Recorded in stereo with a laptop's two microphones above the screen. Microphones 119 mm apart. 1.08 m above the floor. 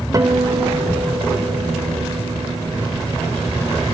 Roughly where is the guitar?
Right.